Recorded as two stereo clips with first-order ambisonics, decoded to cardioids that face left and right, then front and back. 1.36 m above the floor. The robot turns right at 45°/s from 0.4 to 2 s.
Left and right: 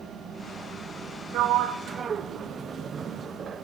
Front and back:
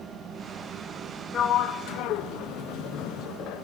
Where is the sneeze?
No sneeze in this recording.